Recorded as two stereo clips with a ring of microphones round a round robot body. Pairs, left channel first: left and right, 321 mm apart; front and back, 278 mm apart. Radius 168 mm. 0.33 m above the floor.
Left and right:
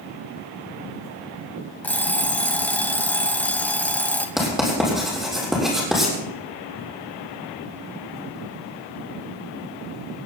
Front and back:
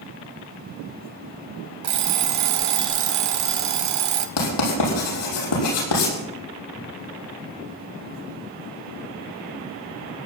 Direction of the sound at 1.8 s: 175° left.